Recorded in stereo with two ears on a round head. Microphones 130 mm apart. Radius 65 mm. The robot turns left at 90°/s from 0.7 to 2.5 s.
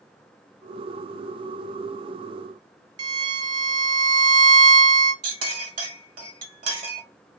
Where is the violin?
30° right (ahead or behind), 0.5 m.